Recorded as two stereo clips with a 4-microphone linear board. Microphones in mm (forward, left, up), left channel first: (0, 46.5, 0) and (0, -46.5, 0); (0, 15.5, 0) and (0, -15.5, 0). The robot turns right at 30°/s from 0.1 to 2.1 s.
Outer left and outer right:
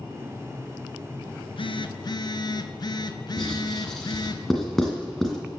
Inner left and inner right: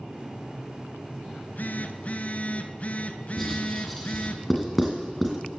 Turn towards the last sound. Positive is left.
turn(degrees=0)  # may be behind; listen again after turning